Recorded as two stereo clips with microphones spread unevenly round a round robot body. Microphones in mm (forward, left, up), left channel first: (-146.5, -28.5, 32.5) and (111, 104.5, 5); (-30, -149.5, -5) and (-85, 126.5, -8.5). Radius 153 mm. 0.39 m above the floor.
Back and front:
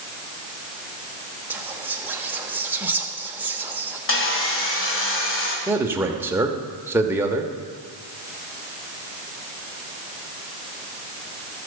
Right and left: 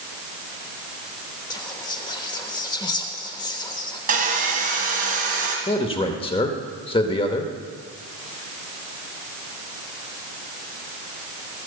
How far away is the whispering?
About 0.9 m.